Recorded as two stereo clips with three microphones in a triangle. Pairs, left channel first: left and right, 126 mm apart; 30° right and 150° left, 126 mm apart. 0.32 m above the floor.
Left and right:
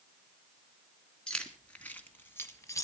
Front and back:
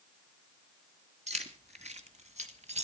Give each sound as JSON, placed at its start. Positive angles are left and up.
{"t": 1.3, "sound": "keys jangling", "azimuth_deg": 175, "distance_m": 2.5}